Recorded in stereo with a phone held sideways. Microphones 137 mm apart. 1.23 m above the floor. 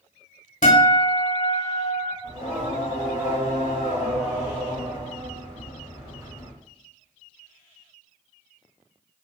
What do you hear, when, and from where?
0.6 s a guitar: 60° left (ahead or behind), 0.9 m
2.2 s singing: 20° right (ahead or behind), 1.2 m